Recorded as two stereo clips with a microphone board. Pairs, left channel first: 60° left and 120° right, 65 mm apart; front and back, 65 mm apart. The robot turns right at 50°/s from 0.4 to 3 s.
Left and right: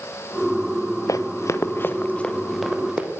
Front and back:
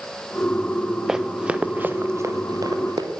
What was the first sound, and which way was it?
Running footsteps, 100° left.